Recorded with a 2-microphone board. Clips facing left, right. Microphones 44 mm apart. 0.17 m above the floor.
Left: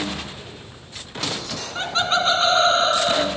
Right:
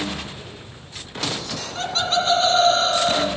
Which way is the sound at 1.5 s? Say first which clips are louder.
Left 1 dB; 20° left (ahead or behind).